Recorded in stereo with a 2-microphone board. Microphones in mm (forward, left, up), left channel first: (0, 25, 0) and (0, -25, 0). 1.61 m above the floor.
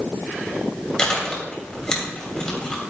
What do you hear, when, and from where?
1.0 s chewing: 20° left (ahead or behind), 2.5 m